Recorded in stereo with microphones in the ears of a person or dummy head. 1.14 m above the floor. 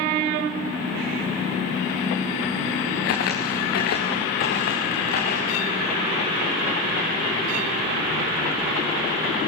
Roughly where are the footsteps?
Left.